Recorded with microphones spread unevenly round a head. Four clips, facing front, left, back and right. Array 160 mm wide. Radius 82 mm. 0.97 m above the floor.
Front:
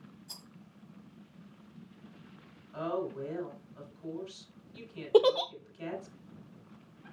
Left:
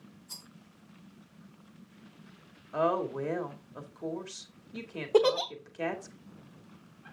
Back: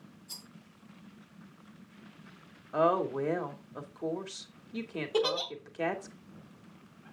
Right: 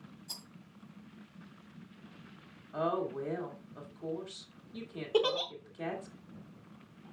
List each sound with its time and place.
0.3 s a rattle: 75° right, 2 m
2.7 s a woman speaking: 160° left, 2.0 m
5.1 s a giggle: 35° left, 0.7 m